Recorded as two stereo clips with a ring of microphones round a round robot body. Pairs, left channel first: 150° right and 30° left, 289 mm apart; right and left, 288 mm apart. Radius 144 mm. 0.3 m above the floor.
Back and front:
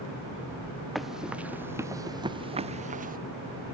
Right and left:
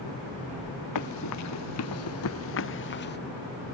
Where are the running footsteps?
60° right; by 3.2 s 30° right.